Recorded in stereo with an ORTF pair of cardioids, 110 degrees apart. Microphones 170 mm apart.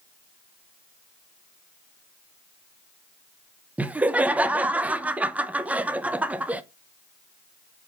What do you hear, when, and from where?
3.8 s laughter: 10° right, 0.7 m